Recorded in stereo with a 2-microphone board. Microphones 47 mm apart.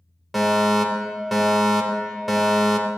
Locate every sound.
0.3 s a fire alarm: centre (ahead or behind), 3 m